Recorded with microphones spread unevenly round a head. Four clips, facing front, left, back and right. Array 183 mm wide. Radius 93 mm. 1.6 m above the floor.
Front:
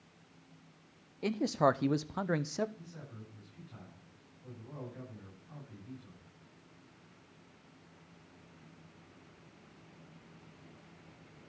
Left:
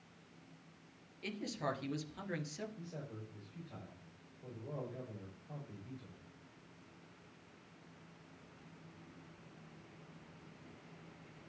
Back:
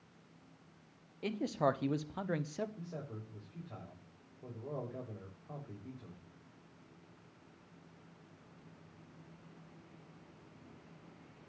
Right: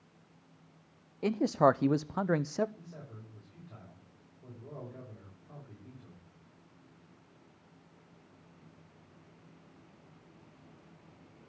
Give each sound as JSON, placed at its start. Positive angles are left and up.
{"t": 1.2, "sound": "a man speaking", "azimuth_deg": -75, "distance_m": 0.6}
{"t": 2.8, "sound": "a man speaking", "azimuth_deg": -170, "distance_m": 6.0}